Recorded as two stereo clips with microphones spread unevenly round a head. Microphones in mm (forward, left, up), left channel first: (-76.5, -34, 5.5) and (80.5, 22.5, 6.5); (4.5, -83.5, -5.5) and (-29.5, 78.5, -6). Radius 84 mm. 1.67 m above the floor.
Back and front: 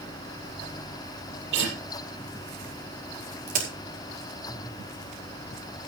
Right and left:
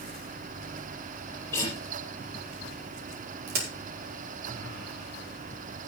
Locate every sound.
1.5 s a guitar: straight ahead, 7.5 m
3.5 s a crack: 65° left, 5 m